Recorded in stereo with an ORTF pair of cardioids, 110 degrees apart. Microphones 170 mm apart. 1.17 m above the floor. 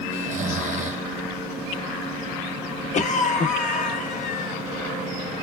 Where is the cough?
50° left, 1.6 m.